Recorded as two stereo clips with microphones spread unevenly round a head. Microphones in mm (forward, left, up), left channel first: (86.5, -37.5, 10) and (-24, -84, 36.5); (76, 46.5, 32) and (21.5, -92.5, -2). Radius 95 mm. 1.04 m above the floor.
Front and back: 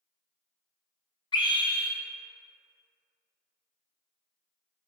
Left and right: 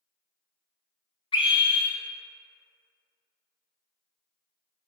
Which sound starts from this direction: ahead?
A scream, at 1.3 s.